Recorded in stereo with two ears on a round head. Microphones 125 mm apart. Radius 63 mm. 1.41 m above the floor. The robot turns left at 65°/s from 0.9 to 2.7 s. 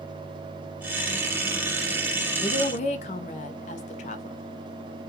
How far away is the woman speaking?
About 0.5 m.